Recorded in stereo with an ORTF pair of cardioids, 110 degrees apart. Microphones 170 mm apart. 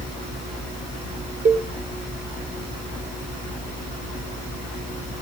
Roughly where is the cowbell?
Ahead right.